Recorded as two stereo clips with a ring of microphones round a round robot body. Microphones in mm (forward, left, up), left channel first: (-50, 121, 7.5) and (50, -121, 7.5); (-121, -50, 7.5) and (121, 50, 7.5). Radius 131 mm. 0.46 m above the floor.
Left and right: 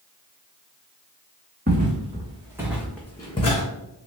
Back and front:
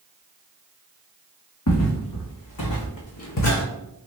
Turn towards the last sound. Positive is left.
turn(degrees=175)